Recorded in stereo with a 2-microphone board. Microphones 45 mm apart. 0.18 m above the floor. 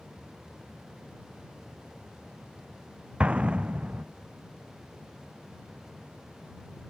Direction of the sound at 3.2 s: 25° right (ahead or behind).